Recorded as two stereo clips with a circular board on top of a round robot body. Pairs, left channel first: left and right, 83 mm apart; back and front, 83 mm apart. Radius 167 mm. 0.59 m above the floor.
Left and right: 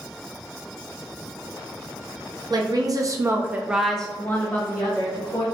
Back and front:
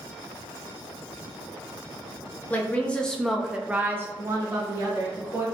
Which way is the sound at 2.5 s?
115° right.